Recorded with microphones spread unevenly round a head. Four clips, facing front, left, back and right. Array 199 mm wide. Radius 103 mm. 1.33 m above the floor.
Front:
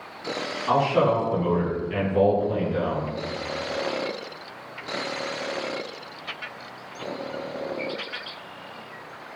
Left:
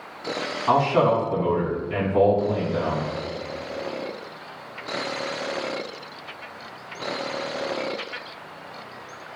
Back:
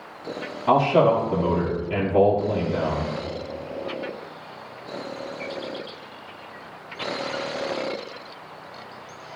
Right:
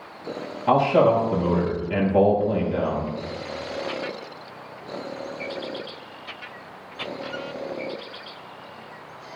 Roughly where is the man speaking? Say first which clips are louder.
Right 2 dB, back 3 dB; behind right.